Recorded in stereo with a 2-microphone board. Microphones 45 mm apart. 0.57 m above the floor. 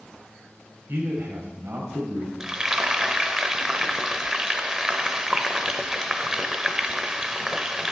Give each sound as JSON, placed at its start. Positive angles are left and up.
{"t": 0.9, "sound": "a man speaking", "side_deg": -60, "distance_m": 2.5}
{"t": 2.4, "sound": "frying", "side_deg": -15, "distance_m": 0.7}